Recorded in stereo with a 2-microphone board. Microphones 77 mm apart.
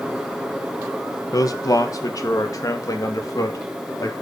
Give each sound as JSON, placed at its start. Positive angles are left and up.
{"t": 1.3, "sound": "a man speaking", "side_deg": 50, "distance_m": 1.3}